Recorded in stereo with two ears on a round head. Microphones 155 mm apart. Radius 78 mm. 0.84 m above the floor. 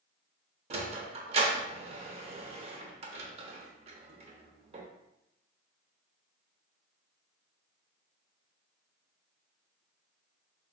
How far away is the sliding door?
About 0.5 m.